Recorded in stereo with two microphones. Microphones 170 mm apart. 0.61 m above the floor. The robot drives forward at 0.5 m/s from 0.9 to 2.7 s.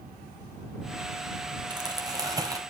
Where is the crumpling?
25° right (ahead or behind), 2.5 m; by 2.6 s 20° right (ahead or behind), 3 m.